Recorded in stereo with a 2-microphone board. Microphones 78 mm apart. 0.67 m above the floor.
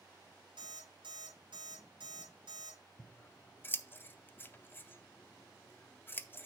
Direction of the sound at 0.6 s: 85° right.